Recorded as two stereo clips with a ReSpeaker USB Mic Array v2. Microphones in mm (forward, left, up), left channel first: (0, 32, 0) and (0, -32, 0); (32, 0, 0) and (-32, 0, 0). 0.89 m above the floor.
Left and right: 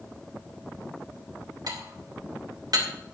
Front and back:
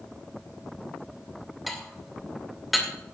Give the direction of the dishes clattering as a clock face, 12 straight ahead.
3 o'clock.